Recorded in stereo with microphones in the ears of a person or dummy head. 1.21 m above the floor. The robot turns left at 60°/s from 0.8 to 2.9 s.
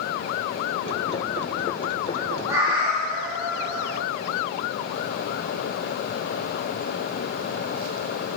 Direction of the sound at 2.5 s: 5° right (ahead or behind).